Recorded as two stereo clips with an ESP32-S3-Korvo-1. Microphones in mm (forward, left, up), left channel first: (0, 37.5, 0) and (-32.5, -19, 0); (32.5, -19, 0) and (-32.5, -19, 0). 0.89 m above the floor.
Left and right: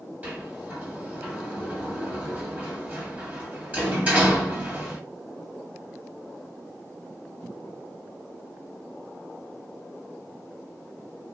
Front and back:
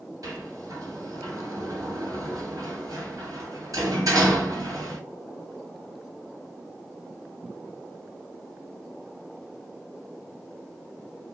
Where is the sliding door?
175° left, 1.5 m.